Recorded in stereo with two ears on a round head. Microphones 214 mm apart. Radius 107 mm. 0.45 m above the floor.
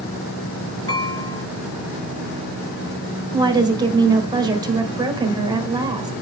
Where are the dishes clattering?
15° left (ahead or behind), 5.5 m.